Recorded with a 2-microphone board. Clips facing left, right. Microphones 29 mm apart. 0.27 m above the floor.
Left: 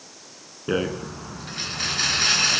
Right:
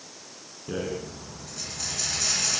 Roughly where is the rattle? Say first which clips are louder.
Left 6 dB; left.